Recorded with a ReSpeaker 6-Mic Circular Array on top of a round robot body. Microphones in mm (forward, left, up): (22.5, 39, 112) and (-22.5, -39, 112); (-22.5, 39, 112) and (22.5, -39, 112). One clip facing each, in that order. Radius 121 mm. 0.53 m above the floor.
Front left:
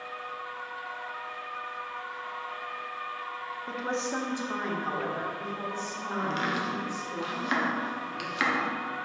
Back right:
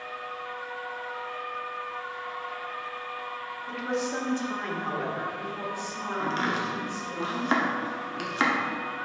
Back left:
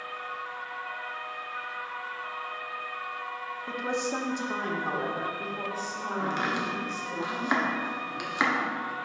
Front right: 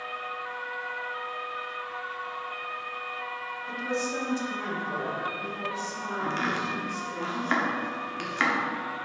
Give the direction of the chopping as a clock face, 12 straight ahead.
6 o'clock.